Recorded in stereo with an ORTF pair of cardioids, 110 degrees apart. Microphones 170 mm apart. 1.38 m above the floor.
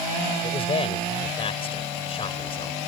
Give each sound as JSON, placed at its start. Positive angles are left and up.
{"t": 0.4, "sound": "a man speaking", "azimuth_deg": 35}